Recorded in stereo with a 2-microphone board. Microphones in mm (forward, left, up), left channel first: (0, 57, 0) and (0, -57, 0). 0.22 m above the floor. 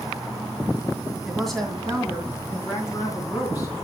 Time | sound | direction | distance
1.3 | a woman speaking | centre (ahead or behind) | 2 m